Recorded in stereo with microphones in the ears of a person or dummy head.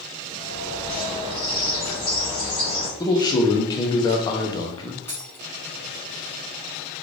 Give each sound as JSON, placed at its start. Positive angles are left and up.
{"t": 0.3, "sound": "a bird", "side_deg": 25, "distance_m": 0.6}
{"t": 3.0, "sound": "a man speaking", "side_deg": 20, "distance_m": 0.6}
{"t": 5.1, "sound": "a dropped coin", "side_deg": 10, "distance_m": 0.7}